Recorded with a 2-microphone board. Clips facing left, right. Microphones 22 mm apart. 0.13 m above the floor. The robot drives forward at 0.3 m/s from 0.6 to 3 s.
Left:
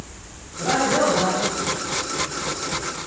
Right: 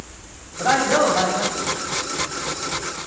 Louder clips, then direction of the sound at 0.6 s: Right 2 dB; 65° right (ahead or behind).